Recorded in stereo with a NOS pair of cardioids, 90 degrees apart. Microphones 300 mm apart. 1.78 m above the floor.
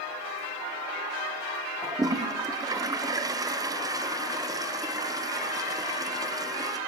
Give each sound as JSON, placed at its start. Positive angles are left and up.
{"t": 1.8, "sound": "a toilet flushing", "azimuth_deg": -10, "distance_m": 1.3}